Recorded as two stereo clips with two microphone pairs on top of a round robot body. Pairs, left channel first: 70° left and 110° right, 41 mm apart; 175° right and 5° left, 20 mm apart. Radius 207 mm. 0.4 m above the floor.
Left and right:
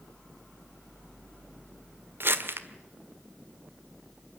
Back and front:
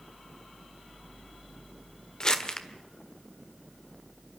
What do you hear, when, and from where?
2.2 s crumpling: 120° right, 1.9 m